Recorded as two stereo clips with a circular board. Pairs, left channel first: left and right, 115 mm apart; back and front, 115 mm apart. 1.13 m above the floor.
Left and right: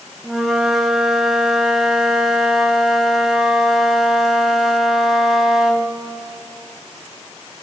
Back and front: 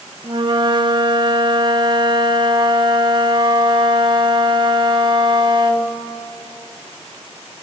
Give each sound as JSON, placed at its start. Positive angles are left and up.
{"t": 0.2, "sound": "a flute", "azimuth_deg": -5, "distance_m": 0.7}